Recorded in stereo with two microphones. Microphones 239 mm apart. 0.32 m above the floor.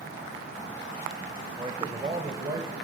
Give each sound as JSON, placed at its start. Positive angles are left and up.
{"t": 1.6, "sound": "a man speaking", "side_deg": -20, "distance_m": 0.9}